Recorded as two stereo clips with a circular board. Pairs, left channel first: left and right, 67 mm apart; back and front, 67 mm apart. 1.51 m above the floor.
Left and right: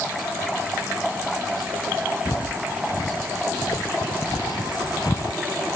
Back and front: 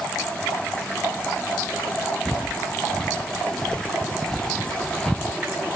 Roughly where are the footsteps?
Left.